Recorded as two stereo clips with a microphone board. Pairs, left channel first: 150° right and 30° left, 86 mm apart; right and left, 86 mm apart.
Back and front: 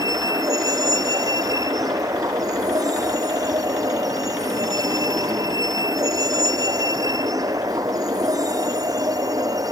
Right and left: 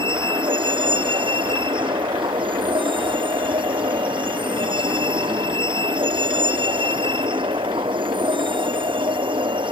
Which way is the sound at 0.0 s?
75° left.